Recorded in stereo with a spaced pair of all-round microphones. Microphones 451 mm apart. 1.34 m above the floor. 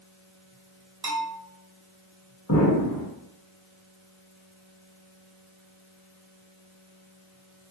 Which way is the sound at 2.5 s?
35° left (ahead or behind).